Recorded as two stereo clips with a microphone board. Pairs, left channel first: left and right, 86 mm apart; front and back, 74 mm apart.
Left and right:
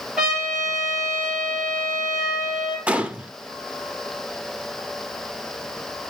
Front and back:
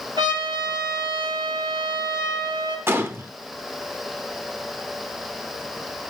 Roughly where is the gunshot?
Behind right.